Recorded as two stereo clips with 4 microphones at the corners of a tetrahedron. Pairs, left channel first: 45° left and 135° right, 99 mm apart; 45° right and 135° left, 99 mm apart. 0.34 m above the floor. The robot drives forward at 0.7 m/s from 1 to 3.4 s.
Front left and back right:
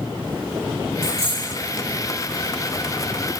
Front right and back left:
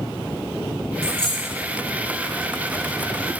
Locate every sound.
1.0 s a dropped coin: 125° right, 3.5 m; by 1.5 s 130° right, 3.5 m